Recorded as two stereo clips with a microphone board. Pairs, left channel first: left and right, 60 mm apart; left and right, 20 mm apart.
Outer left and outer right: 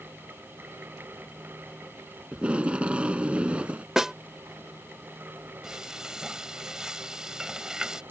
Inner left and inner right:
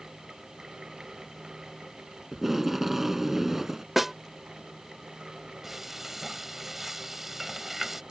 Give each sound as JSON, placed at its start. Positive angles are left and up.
{"t": 2.3, "sound": "tape being pulled", "side_deg": -20}
{"t": 4.0, "sound": "a snare drum", "side_deg": -10}
{"t": 5.6, "sound": "frying", "side_deg": -10}